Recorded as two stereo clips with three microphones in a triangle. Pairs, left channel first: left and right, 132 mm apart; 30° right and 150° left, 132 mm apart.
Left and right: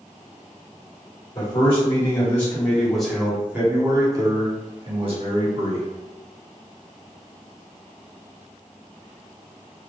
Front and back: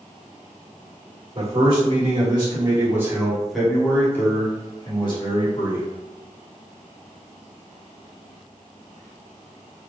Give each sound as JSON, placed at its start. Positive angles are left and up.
{"t": 1.4, "sound": "a man speaking", "azimuth_deg": 135, "distance_m": 1.6}